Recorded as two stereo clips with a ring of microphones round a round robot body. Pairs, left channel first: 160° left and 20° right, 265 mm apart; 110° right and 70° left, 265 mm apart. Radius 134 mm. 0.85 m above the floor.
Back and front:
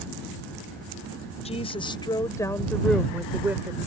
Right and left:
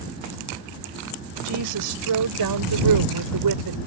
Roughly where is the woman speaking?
Left.